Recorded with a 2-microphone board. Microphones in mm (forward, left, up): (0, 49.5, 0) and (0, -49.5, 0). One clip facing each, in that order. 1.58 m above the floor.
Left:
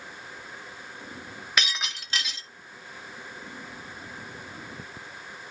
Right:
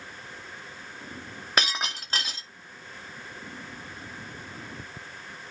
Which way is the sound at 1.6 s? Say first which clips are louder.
Right 2 dB; 40° right (ahead or behind).